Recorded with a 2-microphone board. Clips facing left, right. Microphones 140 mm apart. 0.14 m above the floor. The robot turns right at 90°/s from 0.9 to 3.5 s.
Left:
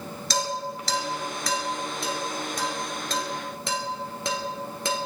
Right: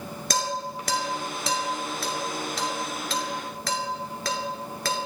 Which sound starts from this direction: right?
Dishes clattering, at 0.3 s.